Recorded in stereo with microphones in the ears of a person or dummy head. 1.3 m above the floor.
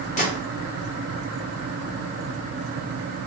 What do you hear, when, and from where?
0.2 s a gunshot: 30° left (ahead or behind), 0.8 m